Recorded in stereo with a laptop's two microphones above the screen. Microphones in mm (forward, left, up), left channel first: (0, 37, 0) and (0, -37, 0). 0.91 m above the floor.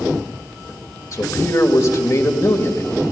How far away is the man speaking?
About 1.6 m.